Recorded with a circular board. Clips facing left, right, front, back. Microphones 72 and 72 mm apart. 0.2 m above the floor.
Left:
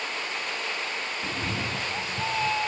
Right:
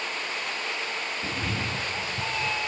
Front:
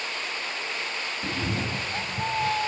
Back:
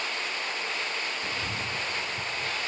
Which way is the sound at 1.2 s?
Straight ahead.